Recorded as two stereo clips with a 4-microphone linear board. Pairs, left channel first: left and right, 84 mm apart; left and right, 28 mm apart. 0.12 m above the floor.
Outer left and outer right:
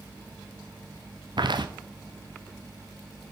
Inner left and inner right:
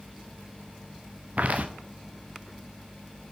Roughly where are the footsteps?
Right.